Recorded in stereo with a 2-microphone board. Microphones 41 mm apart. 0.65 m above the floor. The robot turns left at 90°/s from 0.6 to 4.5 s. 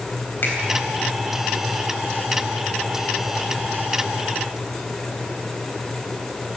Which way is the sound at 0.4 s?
55° left (ahead or behind).